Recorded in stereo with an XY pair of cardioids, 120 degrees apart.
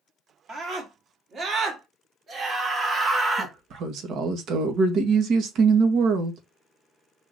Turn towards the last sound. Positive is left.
turn(degrees=-65)